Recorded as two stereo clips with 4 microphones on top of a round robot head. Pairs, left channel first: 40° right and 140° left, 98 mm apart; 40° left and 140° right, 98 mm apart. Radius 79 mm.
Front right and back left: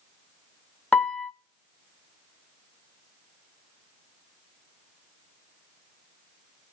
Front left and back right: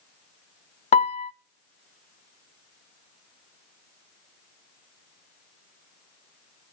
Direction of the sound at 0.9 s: 40° left.